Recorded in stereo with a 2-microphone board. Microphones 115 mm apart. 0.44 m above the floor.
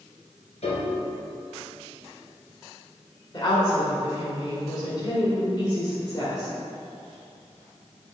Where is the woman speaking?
40° left (ahead or behind), 1.6 m.